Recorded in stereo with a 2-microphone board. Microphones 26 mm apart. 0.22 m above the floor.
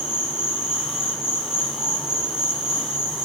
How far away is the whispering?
I don't hear whispering.